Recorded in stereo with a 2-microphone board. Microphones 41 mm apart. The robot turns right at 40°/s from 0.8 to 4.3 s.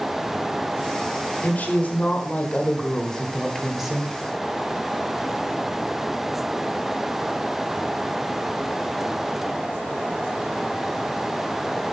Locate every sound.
1.4 s a woman speaking: 90° left, 1.6 m; by 4.1 s 160° right, 1.6 m